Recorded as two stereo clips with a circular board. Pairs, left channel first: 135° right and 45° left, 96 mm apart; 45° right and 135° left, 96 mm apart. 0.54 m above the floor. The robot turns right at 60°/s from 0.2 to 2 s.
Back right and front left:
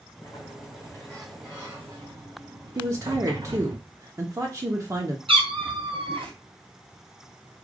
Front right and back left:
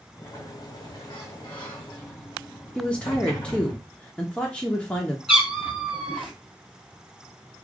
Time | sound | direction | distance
0.2 | a sliding door | 105° right | 4 m
2.8 | a woman speaking | 25° left | 0.9 m
5.3 | a cat meowing | 50° left | 1.6 m